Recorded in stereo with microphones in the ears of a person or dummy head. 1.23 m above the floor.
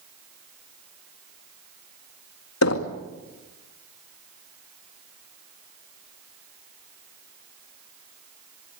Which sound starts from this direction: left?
Knocking, at 2.6 s.